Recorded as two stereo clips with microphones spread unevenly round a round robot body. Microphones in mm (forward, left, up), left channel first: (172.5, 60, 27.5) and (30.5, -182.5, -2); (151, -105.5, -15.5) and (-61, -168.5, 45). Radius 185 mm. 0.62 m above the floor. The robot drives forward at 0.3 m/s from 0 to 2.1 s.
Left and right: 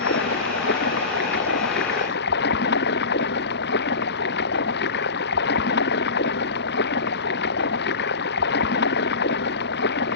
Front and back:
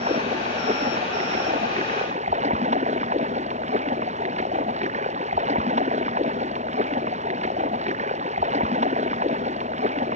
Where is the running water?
125° left.